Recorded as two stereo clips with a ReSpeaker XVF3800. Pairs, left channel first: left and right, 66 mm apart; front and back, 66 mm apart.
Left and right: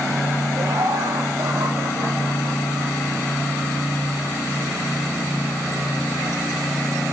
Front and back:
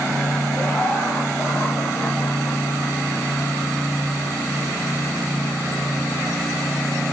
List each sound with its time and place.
0.6 s laughter: 70° right, 6 m; by 3.0 s 80° right, 7 m